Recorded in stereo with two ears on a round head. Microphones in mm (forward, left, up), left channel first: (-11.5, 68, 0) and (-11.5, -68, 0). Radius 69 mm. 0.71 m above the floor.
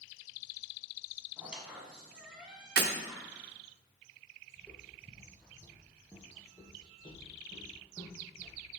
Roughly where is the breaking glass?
Right.